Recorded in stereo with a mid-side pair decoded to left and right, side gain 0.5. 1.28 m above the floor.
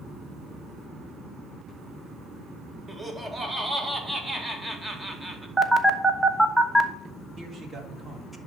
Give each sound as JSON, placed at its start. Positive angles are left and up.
{"t": 2.9, "sound": "laughter", "azimuth_deg": -20, "distance_m": 2.0}
{"t": 5.6, "sound": "a phone buzzing", "azimuth_deg": -5, "distance_m": 1.1}
{"t": 7.4, "sound": "a man speaking", "azimuth_deg": -35, "distance_m": 3.0}